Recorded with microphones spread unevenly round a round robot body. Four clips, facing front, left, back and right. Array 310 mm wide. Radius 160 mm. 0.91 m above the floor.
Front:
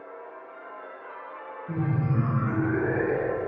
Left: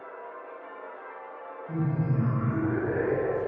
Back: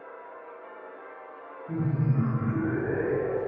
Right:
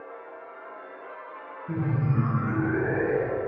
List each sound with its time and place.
1.7 s laughter: 60° right, 1.1 m; by 3.4 s 35° right, 2 m